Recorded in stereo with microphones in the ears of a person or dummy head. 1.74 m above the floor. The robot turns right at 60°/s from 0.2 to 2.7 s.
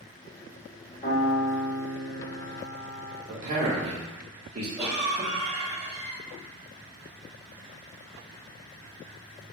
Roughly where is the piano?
Ahead left.